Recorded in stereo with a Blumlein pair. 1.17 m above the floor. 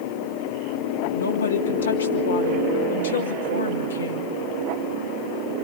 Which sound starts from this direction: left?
A woman speaking, at 1.1 s.